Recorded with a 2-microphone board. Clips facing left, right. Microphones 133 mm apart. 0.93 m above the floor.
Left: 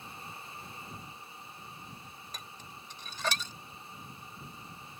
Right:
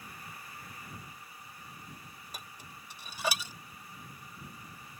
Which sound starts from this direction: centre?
Dishes clattering, at 2.3 s.